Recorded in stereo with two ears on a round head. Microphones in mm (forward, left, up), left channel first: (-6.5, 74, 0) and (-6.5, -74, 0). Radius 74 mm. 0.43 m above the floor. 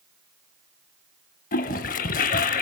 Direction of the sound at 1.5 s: 50° left (ahead or behind).